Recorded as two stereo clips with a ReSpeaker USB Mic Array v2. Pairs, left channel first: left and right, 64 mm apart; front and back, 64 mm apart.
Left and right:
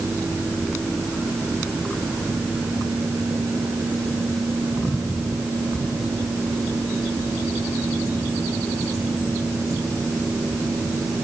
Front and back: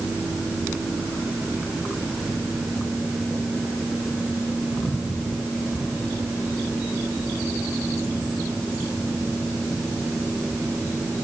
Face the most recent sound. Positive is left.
No sound to turn to.